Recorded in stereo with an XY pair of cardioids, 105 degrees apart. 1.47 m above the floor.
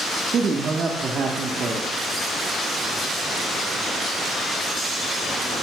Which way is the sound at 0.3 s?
50° right.